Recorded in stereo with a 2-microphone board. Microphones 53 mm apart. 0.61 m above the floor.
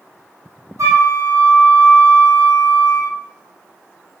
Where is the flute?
75° right (ahead or behind), 3 m.